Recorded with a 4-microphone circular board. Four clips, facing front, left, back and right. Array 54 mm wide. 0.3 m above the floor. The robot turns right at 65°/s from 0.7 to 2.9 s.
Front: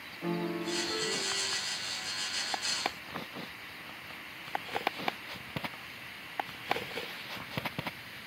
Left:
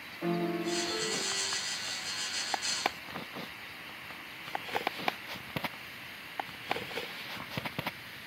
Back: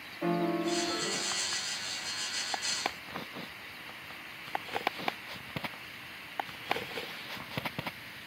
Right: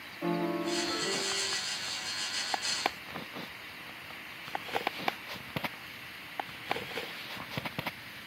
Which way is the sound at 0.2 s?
175° right.